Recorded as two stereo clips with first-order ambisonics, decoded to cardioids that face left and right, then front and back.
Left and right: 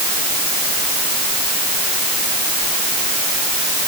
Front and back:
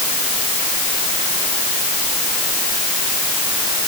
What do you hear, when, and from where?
Only background noise.